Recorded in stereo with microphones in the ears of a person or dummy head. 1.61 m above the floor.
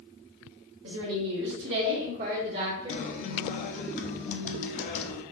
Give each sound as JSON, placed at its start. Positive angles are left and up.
{"t": 0.8, "sound": "a woman speaking", "side_deg": -65, "distance_m": 1.2}
{"t": 2.9, "sound": "a guitar", "side_deg": 40, "distance_m": 0.6}